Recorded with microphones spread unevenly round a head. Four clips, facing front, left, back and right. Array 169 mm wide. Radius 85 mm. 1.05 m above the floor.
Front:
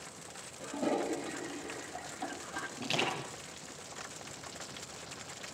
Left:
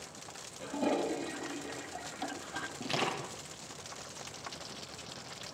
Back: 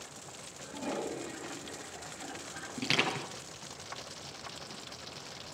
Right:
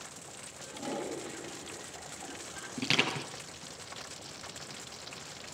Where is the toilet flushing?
65° left, 4 m.